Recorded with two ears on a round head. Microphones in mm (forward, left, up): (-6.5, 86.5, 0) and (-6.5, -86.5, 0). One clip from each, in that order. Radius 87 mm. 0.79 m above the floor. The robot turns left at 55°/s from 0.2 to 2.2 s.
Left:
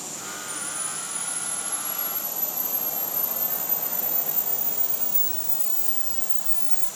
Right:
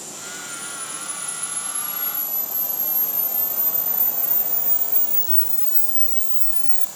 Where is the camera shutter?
40° left, 0.6 m; by 6.9 s 50° right, 0.6 m.